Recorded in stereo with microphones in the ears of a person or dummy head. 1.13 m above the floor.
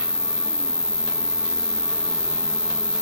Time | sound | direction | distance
0.0 | an insect | 5° left (ahead or behind) | ?